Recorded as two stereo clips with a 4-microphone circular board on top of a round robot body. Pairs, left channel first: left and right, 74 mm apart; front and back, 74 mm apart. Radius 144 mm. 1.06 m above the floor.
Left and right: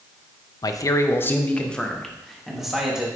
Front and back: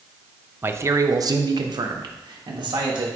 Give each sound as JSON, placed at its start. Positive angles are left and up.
{"t": 0.6, "sound": "a man speaking", "azimuth_deg": 120, "distance_m": 0.7}